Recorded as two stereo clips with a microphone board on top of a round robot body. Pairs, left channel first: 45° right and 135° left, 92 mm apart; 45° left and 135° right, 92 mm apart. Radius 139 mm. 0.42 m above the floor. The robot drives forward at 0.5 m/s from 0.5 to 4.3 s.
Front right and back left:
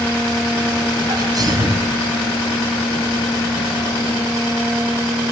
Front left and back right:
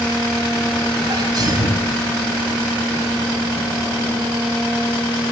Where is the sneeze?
Straight behind, 4.5 m.